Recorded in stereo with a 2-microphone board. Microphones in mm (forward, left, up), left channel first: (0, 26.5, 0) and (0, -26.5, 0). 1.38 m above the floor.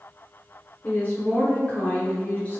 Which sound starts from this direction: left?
A woman speaking, at 0.8 s.